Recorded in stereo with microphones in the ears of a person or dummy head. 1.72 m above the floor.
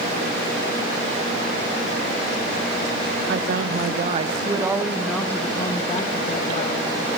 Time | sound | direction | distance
3.3 | a woman speaking | 65° right (ahead or behind) | 2 m